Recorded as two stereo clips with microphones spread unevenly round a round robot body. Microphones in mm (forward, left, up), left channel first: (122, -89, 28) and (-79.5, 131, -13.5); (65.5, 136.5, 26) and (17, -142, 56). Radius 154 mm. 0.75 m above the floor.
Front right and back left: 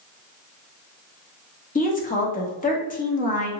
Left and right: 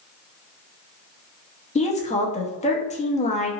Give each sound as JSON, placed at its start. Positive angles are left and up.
{"t": 1.8, "sound": "a woman speaking", "azimuth_deg": 20, "distance_m": 0.8}